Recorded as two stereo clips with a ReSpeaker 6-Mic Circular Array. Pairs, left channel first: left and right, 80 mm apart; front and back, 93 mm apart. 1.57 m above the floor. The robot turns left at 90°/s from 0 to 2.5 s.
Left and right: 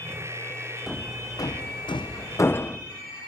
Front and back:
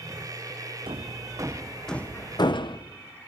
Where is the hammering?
175° left, 0.9 m; by 2.8 s 30° left, 0.9 m.